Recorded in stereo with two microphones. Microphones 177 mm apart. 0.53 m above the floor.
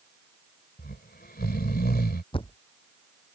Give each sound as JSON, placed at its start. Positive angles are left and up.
{"t": 0.8, "sound": "snoring", "side_deg": 55}
{"t": 2.3, "sound": "a thud", "side_deg": 30}